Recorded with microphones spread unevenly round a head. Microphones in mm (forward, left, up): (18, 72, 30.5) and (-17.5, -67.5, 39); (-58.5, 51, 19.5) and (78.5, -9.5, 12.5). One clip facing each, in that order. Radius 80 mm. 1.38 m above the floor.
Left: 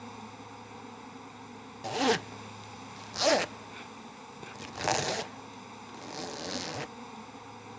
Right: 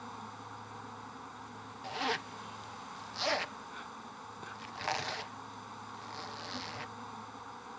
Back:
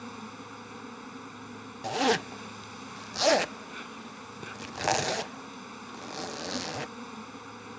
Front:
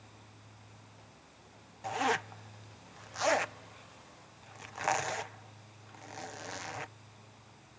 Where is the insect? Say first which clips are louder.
Left 2 dB, back 16 dB; 150° left.